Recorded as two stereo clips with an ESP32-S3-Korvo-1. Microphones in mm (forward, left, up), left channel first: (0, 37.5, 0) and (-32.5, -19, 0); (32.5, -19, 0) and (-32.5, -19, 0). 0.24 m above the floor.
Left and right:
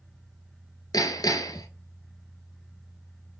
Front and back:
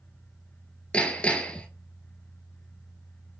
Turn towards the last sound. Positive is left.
turn(degrees=70)